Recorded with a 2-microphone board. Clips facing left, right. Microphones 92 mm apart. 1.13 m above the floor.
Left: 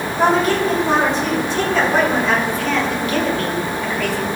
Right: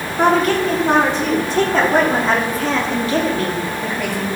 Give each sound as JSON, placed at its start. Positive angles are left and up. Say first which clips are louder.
{"t": 0.2, "sound": "a woman speaking", "louder": "right 1 dB", "side_deg": -55, "distance_m": 3.5}